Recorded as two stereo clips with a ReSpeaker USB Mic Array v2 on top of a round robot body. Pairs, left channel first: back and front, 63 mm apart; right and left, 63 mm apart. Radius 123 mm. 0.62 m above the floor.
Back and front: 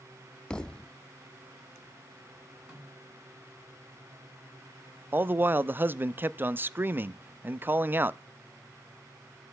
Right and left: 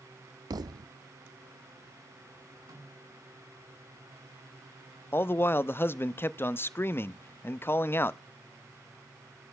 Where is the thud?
100° left, 0.5 m.